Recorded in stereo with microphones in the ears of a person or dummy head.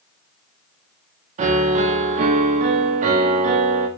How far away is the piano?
About 0.7 m.